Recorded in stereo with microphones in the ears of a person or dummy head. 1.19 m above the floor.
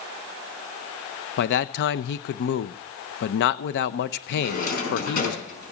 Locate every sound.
1.4 s a man speaking: 55° left (ahead or behind), 0.6 m
4.4 s a drawer: 45° left (ahead or behind), 5 m